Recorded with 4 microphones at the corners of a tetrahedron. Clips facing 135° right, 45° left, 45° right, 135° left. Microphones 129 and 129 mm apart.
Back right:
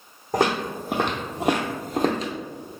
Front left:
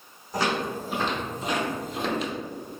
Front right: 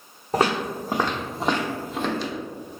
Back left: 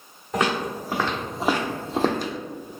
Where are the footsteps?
100° right, 1.1 m; by 2.3 s 170° left, 0.7 m.